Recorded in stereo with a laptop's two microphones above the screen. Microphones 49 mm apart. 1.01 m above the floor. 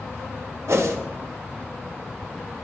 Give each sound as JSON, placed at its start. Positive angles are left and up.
{"t": 0.7, "sound": "a whoosh", "side_deg": -65, "distance_m": 0.5}